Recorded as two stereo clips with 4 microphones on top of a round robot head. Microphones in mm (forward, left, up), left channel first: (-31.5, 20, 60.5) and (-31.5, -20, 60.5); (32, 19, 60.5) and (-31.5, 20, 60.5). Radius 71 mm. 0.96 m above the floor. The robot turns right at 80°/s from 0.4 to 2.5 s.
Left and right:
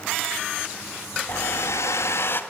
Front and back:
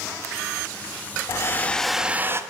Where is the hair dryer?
40° left, 0.8 m; by 2.4 s 130° left, 0.8 m.